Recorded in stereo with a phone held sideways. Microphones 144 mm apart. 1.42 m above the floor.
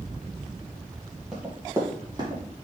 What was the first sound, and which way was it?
Running footsteps, 5° right (ahead or behind).